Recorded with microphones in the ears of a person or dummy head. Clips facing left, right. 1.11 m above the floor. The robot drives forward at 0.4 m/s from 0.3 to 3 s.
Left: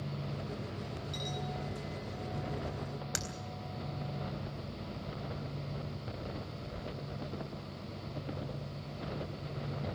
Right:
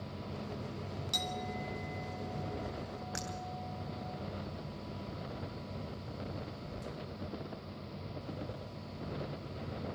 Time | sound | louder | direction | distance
1.1 | a clink | right 1 dB | 65° right (ahead or behind) | 3 m
3.1 | breaking glass | right 1 dB | 50° left (ahead or behind) | 3.5 m